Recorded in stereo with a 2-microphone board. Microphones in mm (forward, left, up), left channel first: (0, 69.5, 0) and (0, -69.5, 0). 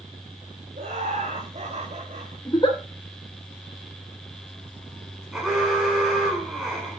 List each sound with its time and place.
0.8 s laughter: 70° right (ahead or behind), 3 m; by 2.4 s 55° right (ahead or behind), 4 m
2.5 s a giggle: 30° left (ahead or behind), 3 m
5.3 s an alarm: centre (ahead or behind), 6 m